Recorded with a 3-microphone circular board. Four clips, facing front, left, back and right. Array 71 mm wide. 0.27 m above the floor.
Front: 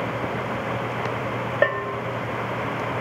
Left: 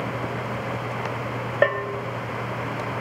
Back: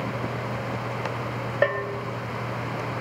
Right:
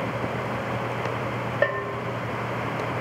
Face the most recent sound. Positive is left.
turn(degrees=60)